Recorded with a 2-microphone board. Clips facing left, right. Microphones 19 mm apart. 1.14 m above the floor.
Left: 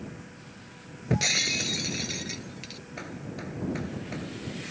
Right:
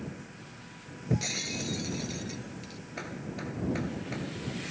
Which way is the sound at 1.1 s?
35° left (ahead or behind).